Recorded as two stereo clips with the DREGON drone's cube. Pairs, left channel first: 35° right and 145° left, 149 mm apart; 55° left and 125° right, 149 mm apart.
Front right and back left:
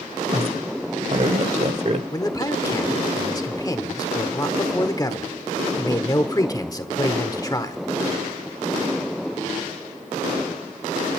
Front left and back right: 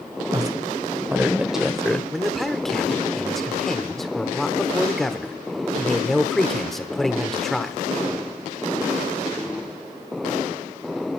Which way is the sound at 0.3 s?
Straight behind.